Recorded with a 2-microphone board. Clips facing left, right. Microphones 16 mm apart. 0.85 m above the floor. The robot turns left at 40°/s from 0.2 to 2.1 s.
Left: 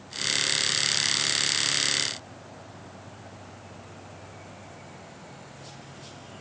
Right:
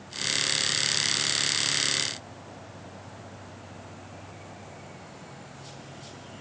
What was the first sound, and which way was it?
Only background noise.